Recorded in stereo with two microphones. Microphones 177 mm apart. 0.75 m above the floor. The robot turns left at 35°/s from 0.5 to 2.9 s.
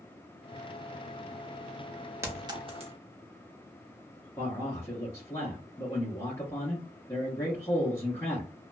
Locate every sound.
2.2 s a clink: 15° right (ahead or behind), 0.7 m; by 2.9 s 40° right (ahead or behind), 0.7 m
4.4 s a man speaking: 20° left (ahead or behind), 1.0 m